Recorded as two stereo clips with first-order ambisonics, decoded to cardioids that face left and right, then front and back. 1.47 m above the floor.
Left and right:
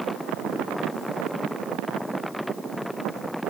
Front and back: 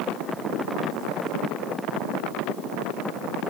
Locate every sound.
Only background noise.